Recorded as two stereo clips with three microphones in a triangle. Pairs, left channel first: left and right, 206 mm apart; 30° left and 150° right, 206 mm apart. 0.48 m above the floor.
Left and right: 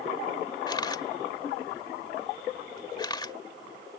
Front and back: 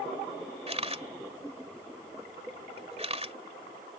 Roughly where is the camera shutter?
Behind left.